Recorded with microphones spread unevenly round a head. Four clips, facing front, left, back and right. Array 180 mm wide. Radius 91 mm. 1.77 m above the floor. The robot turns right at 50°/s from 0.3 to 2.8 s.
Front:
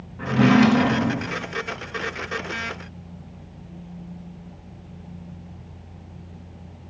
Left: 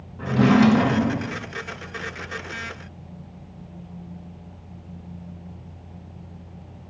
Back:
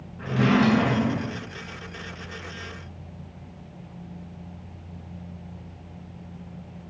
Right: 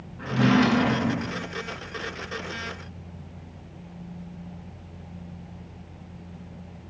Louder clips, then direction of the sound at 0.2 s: Left 4 dB, front 5 dB; 65° left.